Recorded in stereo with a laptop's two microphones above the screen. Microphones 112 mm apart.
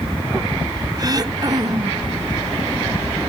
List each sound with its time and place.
1.0 s throat clearing: 35° right (ahead or behind), 0.6 m